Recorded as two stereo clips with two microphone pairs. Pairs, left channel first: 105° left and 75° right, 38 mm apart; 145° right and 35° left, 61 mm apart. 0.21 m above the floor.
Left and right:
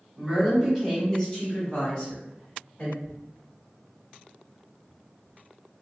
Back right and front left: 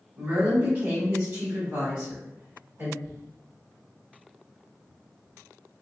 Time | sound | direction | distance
0.2 | a woman speaking | 15° right | 1.1 m
3.0 | tearing paper | 95° left | 1.2 m